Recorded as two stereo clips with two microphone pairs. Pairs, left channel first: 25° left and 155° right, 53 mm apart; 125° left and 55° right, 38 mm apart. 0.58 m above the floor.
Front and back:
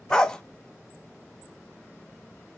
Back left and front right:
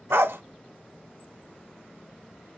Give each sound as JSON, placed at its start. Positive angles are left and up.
{"t": 0.1, "sound": "a dog barking", "azimuth_deg": -50, "distance_m": 0.5}